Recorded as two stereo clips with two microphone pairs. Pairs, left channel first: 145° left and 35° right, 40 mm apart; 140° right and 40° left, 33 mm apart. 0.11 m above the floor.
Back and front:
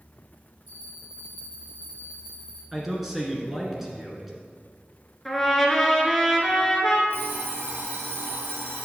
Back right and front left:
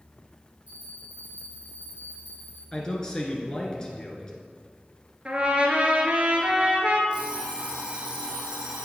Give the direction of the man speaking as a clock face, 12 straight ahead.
3 o'clock.